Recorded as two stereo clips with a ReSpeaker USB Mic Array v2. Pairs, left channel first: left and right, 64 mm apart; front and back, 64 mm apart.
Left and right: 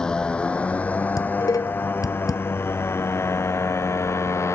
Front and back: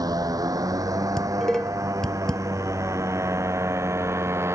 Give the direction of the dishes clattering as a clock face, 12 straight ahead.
9 o'clock.